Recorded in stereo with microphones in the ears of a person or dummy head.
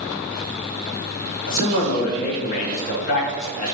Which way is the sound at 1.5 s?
45° left (ahead or behind).